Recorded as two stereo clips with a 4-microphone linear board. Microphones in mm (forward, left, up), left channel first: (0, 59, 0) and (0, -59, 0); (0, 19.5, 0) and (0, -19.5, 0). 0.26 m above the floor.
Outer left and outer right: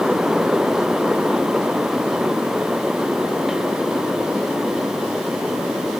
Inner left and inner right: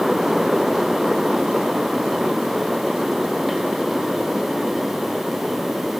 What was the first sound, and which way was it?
Only background noise.